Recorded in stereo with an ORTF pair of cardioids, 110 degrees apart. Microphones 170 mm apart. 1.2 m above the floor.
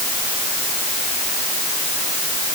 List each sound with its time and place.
Only background noise.